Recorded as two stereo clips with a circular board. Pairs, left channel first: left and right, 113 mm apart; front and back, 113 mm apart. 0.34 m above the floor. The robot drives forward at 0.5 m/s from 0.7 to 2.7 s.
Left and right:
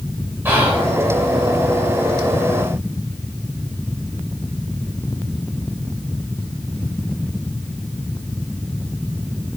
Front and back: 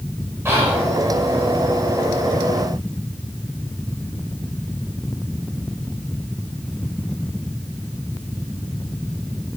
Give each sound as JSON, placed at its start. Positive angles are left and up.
{"t": 0.5, "sound": "whispering", "azimuth_deg": -135, "distance_m": 1.0}